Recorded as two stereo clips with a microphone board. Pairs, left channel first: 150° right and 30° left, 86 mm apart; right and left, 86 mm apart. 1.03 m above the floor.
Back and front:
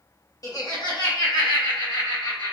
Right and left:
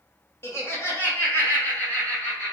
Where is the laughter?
135° right, 1.1 m; by 2.5 s 160° right, 1.9 m.